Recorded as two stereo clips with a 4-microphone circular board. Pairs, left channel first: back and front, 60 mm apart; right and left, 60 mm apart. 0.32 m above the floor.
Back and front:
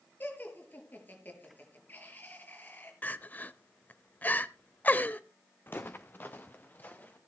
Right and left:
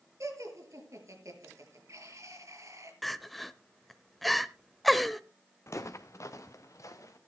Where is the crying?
Straight behind, 0.7 m.